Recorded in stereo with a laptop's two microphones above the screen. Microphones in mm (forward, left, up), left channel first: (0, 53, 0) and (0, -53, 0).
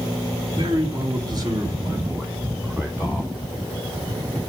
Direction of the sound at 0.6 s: 50° right (ahead or behind).